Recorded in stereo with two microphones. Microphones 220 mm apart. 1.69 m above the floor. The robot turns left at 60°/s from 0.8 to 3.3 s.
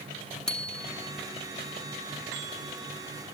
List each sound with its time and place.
0.5 s a bicycle bell: 5° left (ahead or behind); by 1.1 s 15° right (ahead or behind)